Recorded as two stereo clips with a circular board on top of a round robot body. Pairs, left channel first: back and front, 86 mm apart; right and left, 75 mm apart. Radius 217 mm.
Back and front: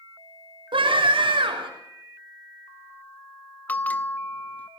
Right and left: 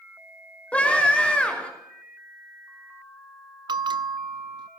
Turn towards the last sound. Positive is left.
turn(degrees=105)